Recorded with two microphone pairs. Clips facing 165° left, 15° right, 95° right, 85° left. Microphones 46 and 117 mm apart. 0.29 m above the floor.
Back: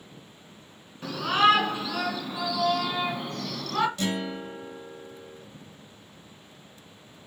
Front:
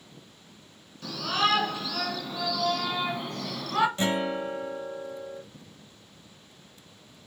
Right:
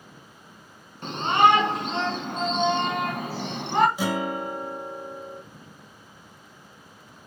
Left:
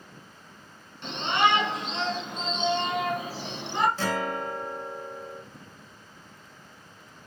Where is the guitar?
30° right, 1.5 m.